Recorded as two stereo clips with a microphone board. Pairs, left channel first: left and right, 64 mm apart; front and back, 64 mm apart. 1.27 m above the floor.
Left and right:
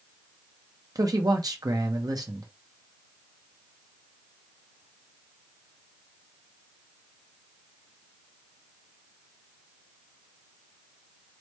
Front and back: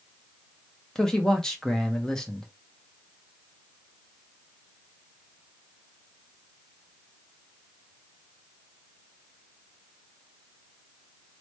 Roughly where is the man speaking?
Right.